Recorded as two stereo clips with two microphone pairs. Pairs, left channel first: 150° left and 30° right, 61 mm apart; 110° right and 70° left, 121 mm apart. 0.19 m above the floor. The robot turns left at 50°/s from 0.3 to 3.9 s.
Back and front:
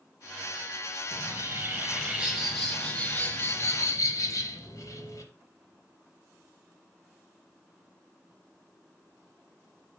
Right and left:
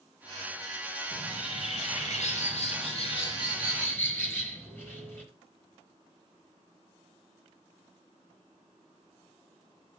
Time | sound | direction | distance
1.1 | a bird | 45° right | 4 m